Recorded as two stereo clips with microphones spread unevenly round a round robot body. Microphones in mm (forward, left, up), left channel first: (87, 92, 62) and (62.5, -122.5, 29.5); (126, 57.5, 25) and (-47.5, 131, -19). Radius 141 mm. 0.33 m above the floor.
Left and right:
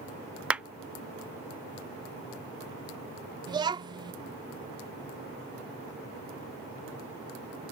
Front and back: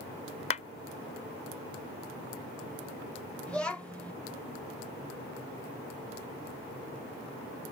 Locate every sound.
0.5 s a clap: 50° right
3.5 s a child speaking: 125° right